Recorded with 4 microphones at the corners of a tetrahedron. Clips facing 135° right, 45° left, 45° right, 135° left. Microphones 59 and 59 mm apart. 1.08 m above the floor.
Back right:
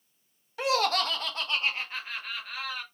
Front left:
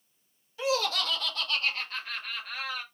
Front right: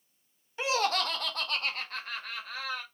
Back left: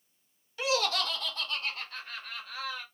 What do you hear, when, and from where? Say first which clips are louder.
0.6 s laughter: back right 3 dB, front right 1 dB; 110° right, 1.2 m; by 2.8 s 40° right, 2.0 m